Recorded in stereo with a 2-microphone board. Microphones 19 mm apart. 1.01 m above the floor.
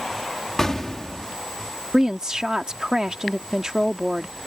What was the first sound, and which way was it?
An explosion, 30° left (ahead or behind).